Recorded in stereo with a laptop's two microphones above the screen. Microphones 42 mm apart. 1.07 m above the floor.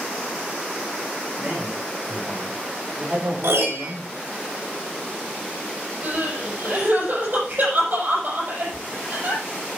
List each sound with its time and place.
1.4 s a man speaking: 20° right (ahead or behind), 5 m; by 4.1 s 35° right (ahead or behind), 3 m
3.4 s a piano: 65° right (ahead or behind), 3.5 m
6.0 s crying: 45° right (ahead or behind), 6 m